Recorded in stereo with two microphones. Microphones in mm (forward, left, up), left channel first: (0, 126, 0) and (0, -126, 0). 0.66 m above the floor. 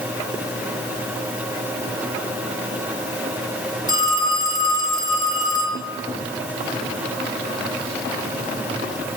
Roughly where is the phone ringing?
Centre.